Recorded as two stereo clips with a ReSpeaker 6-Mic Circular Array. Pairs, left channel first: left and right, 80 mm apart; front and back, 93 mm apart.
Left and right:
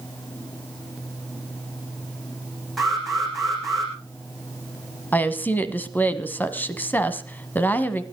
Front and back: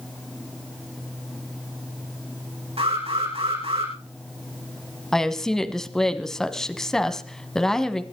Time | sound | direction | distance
2.8 | an alarm | straight behind | 8.5 m
5.1 | a woman speaking | 75° left | 1.2 m